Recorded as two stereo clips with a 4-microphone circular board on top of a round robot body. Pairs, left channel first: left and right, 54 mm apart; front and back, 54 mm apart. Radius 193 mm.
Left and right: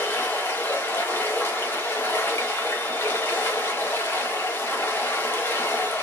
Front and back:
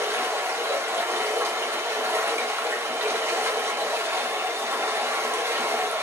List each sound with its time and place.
0.0 s running water: 140° left, 1.5 m